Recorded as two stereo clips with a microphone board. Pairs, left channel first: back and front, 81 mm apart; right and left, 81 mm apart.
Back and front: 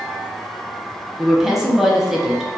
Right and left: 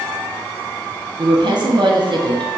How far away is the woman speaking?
About 0.7 m.